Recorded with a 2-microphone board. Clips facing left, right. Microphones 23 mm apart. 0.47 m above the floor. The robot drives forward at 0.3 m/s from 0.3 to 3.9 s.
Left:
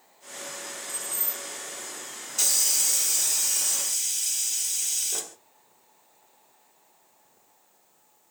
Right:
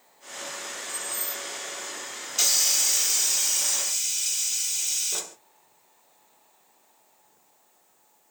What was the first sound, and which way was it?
Keys jangling, 15° right (ahead or behind).